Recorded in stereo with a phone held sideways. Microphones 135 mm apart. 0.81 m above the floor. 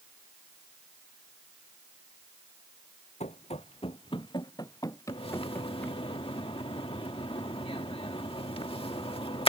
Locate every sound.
3.2 s running footsteps: 55° left (ahead or behind); by 6.0 s 10° left (ahead or behind)
5.1 s a splash: 45° left (ahead or behind)